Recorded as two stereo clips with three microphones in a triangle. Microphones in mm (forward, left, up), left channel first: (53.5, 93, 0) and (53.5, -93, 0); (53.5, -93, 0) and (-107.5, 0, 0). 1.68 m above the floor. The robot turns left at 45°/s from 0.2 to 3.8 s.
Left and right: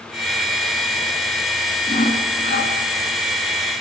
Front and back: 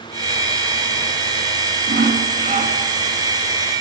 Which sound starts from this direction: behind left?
Sawing, at 1.9 s.